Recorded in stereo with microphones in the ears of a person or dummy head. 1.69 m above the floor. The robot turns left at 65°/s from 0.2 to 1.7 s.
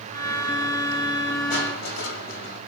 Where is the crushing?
40° left (ahead or behind), 2.5 m; by 2.6 s 55° left (ahead or behind), 2.5 m.